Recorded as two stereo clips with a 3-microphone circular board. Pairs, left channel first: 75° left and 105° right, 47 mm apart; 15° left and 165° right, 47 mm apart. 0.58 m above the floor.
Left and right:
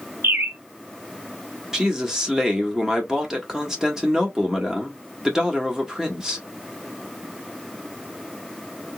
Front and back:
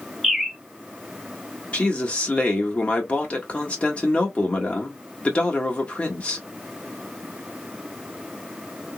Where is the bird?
80° right, 0.7 m.